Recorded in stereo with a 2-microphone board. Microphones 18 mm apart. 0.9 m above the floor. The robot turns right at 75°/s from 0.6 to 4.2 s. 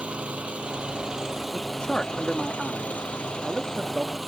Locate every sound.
0.0 s an engine running: 90° right; by 4.3 s straight behind
1.5 s a man speaking: 90° left; by 4.2 s 75° right